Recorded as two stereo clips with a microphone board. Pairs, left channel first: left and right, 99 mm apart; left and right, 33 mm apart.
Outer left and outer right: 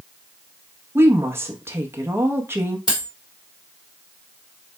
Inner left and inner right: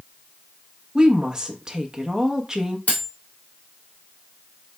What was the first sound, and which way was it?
A woman speaking, 25° right (ahead or behind).